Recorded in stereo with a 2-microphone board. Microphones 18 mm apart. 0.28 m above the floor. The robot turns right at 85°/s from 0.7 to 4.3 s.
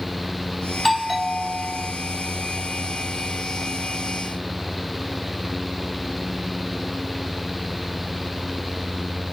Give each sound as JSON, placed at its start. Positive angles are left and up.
{"t": 0.7, "sound": "a doorbell", "azimuth_deg": 165}